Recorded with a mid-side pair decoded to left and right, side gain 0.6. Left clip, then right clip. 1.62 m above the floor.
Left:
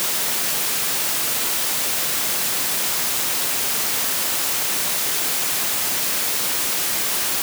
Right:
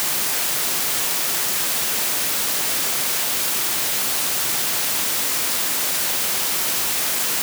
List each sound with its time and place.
Only background noise.